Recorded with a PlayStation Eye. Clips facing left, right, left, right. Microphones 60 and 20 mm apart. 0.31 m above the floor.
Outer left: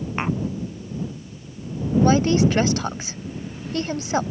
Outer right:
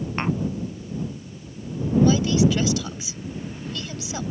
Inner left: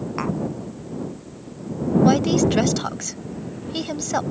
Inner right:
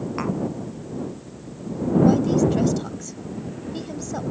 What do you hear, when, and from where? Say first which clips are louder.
0.2 s tapping: outer left 1 dB, inner left 1 dB; 5° left (ahead or behind)
2.0 s a woman speaking: outer left 2 dB, inner left 1 dB; 45° left (ahead or behind)